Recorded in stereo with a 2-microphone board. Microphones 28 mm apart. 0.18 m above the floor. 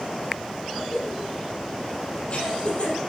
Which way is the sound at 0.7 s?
40° left (ahead or behind).